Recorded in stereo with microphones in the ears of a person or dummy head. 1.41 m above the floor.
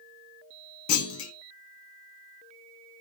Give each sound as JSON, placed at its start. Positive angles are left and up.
{"t": 0.9, "sound": "a clunk", "side_deg": 75, "distance_m": 0.9}